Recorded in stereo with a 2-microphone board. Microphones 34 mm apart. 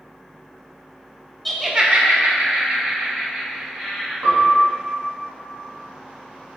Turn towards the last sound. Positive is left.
turn(degrees=-60)  # may be behind; listen again after turning